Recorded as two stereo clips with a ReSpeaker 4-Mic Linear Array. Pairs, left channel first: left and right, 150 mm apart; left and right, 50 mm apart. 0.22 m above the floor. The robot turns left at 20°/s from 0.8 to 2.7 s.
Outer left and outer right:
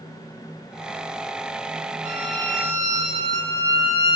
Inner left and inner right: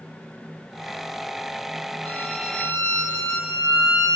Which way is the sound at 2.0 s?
10° right (ahead or behind).